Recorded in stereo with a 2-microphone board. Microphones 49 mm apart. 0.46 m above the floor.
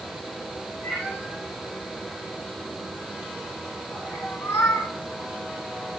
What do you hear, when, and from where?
0.8 s a cat meowing: 20° left (ahead or behind), 4 m; by 4.9 s 85° left, 1.4 m